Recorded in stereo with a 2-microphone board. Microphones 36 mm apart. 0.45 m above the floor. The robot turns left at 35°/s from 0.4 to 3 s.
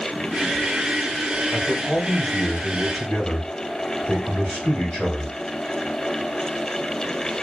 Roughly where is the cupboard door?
No cupboard door in this recording.